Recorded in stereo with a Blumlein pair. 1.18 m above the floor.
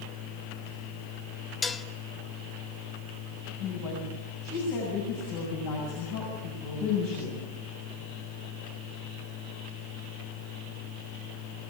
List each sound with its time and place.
0.0 s a machine running: 55° left, 5 m
1.6 s dishes clattering: 15° left, 1.0 m
3.6 s a woman speaking: 45° left, 7 m